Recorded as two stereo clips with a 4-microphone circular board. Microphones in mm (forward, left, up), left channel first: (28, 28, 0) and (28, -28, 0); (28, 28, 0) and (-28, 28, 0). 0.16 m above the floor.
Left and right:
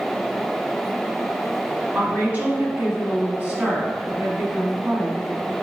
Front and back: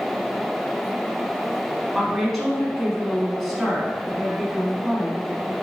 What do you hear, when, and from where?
1.9 s a woman speaking: 100° right, 1.5 m